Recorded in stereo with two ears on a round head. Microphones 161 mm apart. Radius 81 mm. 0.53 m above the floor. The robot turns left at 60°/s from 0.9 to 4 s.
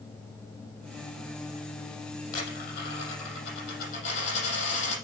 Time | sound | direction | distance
2.3 | a dropped coin | 140° left | 5.5 m